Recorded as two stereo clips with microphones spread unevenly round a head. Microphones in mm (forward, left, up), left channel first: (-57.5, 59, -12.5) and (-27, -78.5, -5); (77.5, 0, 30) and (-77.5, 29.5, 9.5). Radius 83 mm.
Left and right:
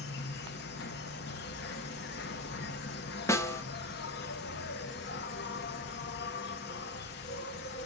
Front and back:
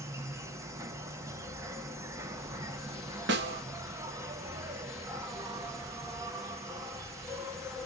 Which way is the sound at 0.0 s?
95° left.